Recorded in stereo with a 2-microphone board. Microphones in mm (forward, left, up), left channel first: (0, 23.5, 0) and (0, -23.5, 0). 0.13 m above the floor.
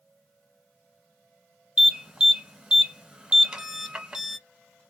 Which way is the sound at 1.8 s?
15° right (ahead or behind).